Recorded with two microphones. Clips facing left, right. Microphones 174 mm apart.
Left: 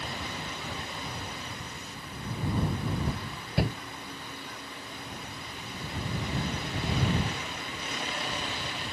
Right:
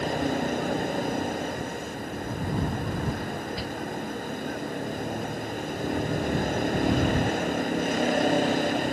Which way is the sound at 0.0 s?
55° right (ahead or behind).